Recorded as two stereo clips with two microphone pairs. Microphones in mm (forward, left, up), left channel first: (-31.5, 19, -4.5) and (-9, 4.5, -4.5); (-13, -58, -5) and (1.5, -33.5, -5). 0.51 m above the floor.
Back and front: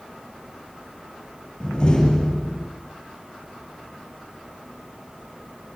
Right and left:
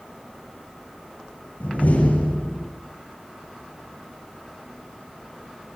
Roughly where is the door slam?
Behind right.